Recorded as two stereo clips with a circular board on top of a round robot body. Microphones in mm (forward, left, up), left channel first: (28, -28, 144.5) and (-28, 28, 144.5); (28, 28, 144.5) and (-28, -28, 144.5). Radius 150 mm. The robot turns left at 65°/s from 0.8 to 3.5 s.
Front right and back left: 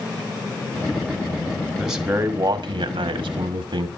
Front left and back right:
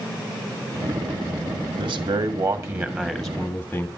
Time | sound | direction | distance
1.8 | a man speaking | 135° right | 1.7 m